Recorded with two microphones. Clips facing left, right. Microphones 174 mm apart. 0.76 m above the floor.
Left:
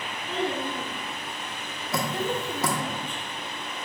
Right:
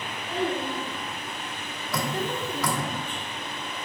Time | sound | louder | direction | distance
0.3 | a child speaking | right 1 dB | 10° right (ahead or behind) | 2 m
1.9 | dripping | left 1 dB | 20° left (ahead or behind) | 1.1 m